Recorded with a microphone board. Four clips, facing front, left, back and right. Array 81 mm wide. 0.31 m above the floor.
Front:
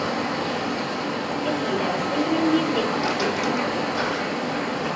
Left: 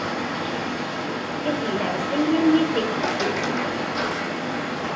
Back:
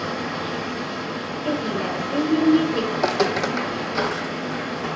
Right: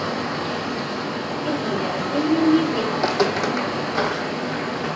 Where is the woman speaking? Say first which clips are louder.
Even, back 1 dB; 45° left, 0.9 m.